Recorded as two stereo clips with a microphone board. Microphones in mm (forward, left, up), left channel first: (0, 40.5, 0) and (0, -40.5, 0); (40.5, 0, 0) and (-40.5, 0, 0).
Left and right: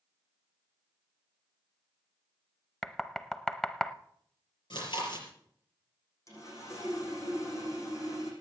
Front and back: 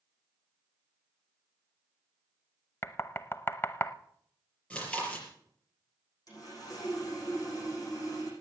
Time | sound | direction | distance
2.8 | knocking | 15° left | 0.6 m
4.7 | chewing | 75° left | 5.5 m
6.3 | sawing | 40° left | 7 m